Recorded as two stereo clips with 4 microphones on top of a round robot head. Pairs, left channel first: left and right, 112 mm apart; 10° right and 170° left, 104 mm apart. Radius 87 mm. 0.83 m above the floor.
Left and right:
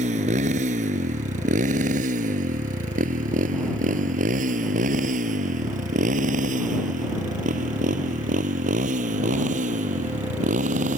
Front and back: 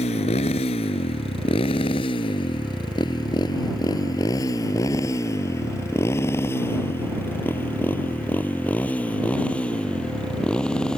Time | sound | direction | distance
0.0 | a motorcycle | 50° right | ?